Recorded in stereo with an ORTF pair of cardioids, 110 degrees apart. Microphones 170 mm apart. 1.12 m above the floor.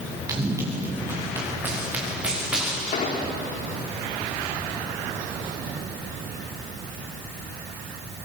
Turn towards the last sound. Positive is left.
turn(degrees=45)